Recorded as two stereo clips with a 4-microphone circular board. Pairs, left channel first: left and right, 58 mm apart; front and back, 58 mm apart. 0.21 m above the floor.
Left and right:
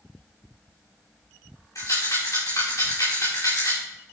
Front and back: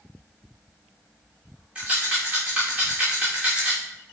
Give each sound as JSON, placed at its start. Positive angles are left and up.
{"t": 1.8, "sound": "a rattle", "azimuth_deg": 105, "distance_m": 7.0}